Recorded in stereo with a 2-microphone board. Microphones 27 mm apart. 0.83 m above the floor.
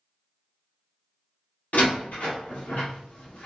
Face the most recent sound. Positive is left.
turn(degrees=80)